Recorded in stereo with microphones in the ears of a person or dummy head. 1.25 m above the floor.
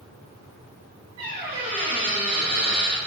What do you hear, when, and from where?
1.2 s a squeak: 20° right (ahead or behind), 1.2 m